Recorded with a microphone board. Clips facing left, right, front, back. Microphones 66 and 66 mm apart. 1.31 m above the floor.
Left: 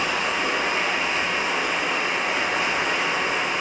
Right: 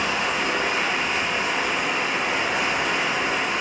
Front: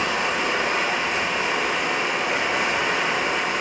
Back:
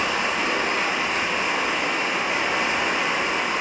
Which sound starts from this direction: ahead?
Running water, at 0.0 s.